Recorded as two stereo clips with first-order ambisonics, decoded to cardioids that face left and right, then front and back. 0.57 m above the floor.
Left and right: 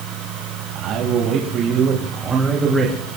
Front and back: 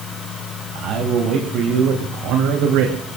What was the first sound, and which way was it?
A man speaking, 130° right.